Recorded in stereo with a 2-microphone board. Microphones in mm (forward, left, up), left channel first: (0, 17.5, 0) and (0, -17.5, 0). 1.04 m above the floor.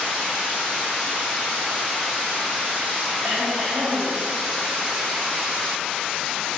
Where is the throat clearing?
50° right (ahead or behind), 6 m.